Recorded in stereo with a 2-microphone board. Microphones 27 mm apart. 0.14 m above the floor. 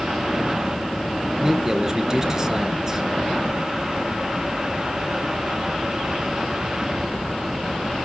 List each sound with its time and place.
1.4 s a man speaking: 20° right (ahead or behind), 2.5 m